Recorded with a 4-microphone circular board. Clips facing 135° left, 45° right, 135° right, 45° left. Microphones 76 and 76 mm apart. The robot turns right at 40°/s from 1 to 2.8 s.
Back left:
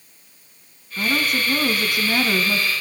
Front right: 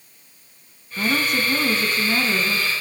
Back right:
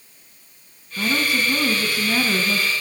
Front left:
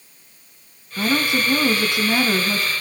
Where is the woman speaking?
40° left, 1.3 m; by 2.7 s 110° left, 1.3 m.